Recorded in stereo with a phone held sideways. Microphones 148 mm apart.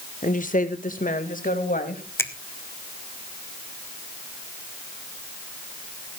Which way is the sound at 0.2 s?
60° left (ahead or behind).